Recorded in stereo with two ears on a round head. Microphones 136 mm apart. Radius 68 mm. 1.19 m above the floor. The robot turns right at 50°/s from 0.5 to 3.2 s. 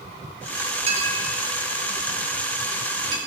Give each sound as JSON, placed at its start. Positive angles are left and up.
{"t": 0.9, "sound": "a clink", "side_deg": -40, "distance_m": 1.5}